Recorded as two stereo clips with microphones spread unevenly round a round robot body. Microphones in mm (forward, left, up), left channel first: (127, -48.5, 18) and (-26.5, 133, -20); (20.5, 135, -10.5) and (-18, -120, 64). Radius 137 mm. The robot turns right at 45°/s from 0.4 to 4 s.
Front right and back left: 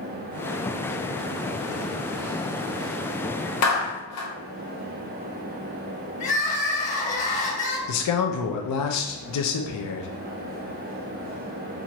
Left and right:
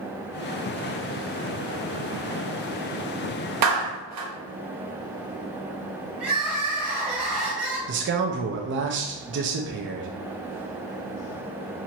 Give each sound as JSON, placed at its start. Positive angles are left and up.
{"t": 3.6, "sound": "a clap", "azimuth_deg": -90, "distance_m": 0.8}
{"t": 6.2, "sound": "crying", "azimuth_deg": -35, "distance_m": 0.9}
{"t": 7.9, "sound": "a man speaking", "azimuth_deg": -45, "distance_m": 0.5}